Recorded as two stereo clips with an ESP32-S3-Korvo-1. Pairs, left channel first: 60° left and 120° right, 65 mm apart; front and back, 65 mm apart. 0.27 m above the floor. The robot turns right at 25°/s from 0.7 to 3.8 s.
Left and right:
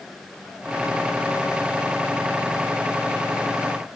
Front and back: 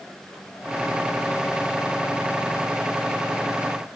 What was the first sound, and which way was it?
Only background noise.